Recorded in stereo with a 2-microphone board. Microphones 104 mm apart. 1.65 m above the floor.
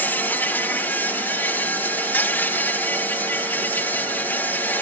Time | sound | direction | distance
0.0 | an insect | 20° left (ahead or behind) | ?